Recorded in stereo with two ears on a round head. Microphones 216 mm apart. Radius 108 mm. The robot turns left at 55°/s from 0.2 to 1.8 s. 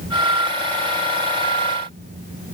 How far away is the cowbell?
I don't hear a cowbell.